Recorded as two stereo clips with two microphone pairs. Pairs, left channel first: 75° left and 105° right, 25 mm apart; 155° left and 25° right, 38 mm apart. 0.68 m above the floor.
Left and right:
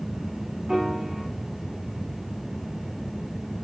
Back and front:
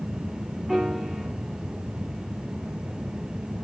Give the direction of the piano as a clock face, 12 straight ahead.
3 o'clock.